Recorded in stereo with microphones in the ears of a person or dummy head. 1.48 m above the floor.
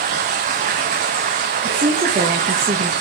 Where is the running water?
25° right (ahead or behind), 0.8 m.